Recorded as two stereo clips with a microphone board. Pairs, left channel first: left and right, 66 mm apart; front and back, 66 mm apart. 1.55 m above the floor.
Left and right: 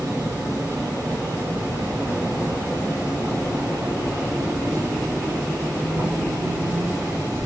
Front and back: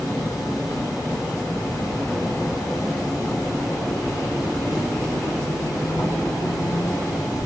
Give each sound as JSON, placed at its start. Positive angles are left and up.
{"t": 0.0, "sound": "an insect", "azimuth_deg": -30, "distance_m": 1.5}